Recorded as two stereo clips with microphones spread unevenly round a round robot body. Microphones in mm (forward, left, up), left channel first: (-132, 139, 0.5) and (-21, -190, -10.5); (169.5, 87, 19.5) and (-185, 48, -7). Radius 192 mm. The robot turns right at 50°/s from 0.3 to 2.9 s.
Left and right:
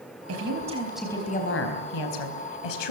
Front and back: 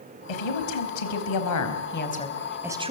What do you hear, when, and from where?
0.3 s a woman speaking: 15° right, 4 m; by 2.9 s 115° left, 4 m